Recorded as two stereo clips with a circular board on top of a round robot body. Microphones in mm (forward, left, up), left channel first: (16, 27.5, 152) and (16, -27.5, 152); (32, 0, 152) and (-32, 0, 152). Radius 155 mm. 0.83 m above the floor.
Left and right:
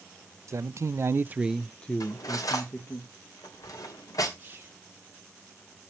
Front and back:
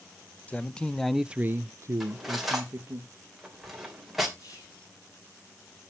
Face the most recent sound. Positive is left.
turn(degrees=-35)